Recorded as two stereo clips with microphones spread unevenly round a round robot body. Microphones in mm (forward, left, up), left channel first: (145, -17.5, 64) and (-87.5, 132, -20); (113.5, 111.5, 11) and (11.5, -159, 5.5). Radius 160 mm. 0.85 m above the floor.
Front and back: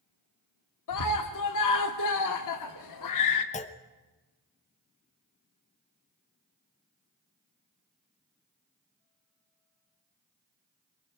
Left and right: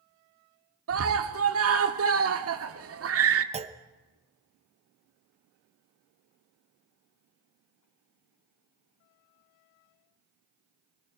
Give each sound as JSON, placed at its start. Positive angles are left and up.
{"t": 0.9, "sound": "a scream", "azimuth_deg": -70, "distance_m": 1.9}
{"t": 3.5, "sound": "a clunk", "azimuth_deg": -105, "distance_m": 0.9}